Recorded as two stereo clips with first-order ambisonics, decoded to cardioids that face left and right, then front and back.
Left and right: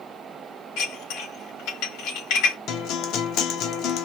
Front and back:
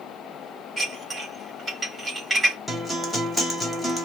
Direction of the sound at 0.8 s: 95° left.